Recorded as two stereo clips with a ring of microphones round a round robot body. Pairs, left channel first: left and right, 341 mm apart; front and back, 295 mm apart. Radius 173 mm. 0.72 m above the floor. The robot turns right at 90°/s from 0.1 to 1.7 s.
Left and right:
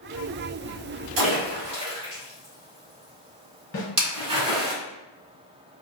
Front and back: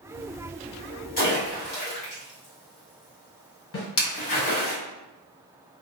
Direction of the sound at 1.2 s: 65° right.